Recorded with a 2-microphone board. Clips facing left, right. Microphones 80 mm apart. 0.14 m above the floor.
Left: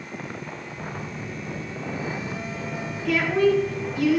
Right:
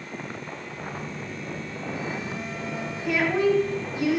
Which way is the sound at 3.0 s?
20° right (ahead or behind).